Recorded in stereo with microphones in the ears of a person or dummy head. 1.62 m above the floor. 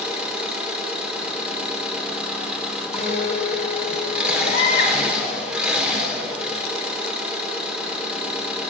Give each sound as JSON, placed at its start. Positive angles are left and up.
{"t": 0.0, "sound": "an engine running", "side_deg": -10, "distance_m": 1.2}
{"t": 2.9, "sound": "a guitar", "side_deg": 25, "distance_m": 5.5}
{"t": 4.4, "sound": "a baby crying", "side_deg": 55, "distance_m": 1.5}